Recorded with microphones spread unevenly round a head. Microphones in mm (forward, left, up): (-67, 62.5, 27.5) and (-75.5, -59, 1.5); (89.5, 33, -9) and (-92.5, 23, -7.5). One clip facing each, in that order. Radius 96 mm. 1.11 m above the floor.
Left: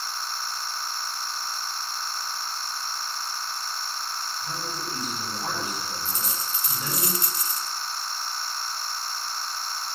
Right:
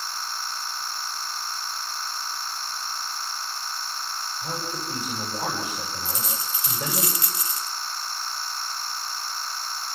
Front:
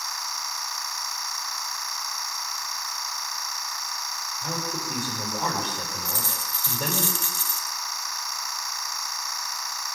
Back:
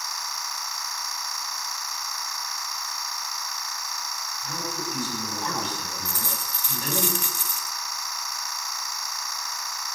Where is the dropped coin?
105° right, 1.2 m.